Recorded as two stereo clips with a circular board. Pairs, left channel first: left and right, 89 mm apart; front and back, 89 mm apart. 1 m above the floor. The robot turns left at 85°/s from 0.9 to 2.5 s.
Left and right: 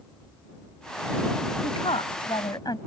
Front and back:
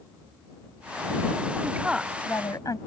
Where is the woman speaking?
120° left; by 2.8 s 50° left.